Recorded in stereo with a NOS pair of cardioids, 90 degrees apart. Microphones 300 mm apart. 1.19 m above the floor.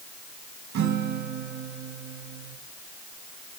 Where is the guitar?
70° right, 4.5 m.